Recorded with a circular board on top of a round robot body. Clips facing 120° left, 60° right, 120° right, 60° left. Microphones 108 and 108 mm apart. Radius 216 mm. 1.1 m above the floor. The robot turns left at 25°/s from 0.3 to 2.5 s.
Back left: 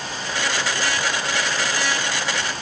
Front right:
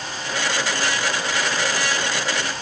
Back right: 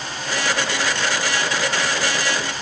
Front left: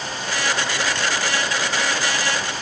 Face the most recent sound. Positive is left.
No sound to turn to.